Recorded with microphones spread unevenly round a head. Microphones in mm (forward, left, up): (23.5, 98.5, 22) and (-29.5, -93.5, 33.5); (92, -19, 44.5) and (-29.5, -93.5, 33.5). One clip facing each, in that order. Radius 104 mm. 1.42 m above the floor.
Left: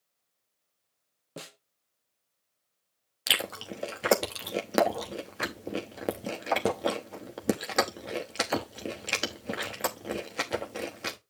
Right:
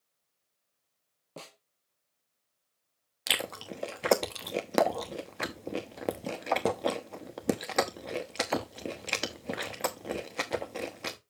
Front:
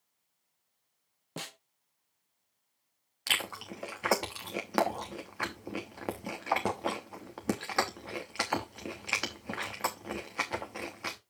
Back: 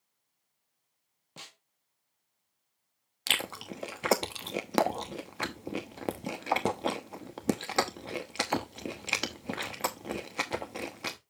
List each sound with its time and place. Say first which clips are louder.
1.4 s a snare drum: left 3 dB, front 10 dB; 5° left, 0.8 m
3.3 s chewing: left 1 dB, back 2 dB; 160° left, 0.8 m